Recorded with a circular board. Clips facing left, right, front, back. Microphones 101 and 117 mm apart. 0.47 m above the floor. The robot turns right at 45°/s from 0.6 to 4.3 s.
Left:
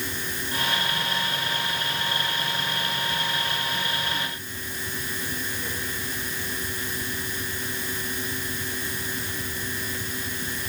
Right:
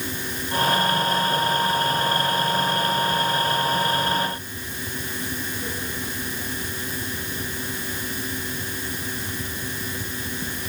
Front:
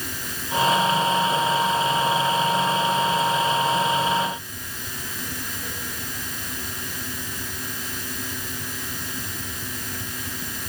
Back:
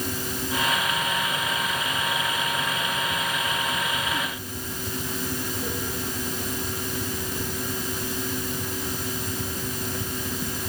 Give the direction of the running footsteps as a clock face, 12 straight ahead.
No running footsteps in this recording.